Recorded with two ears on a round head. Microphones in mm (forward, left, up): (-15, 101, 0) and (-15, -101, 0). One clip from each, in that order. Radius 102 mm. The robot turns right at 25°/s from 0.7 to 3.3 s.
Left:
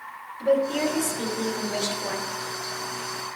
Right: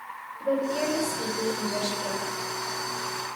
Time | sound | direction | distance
0.4 | a woman speaking | 100° left | 2 m